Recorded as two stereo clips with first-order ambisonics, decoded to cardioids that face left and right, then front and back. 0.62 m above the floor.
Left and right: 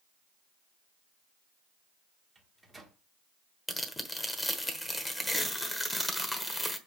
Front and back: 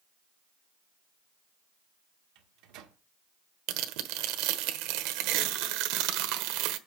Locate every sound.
2.4 s a microwave: 170° right, 1.4 m
3.7 s tearing paper: 175° left, 1.2 m